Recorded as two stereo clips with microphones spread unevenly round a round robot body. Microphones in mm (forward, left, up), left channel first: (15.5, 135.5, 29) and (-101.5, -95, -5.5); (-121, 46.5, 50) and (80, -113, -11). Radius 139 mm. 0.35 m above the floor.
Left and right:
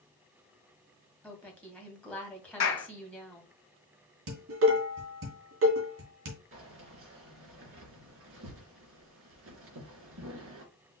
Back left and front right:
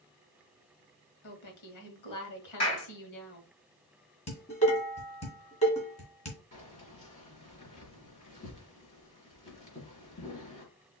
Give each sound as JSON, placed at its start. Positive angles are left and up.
{"t": 1.2, "sound": "a woman speaking", "azimuth_deg": 150, "distance_m": 2.0}
{"t": 2.6, "sound": "a clap", "azimuth_deg": 85, "distance_m": 2.5}
{"t": 4.3, "sound": "dishes clattering", "azimuth_deg": -150, "distance_m": 2.0}
{"t": 6.5, "sound": "keys jangling", "azimuth_deg": -155, "distance_m": 3.0}